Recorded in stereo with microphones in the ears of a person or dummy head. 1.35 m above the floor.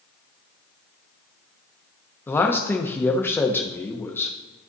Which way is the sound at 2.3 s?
15° left (ahead or behind).